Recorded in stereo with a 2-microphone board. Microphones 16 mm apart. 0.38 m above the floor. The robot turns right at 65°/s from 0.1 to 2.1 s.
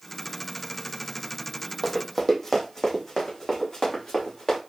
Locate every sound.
1.8 s running footsteps: 15° right (ahead or behind), 0.8 m; by 4.6 s 45° left (ahead or behind), 1.9 m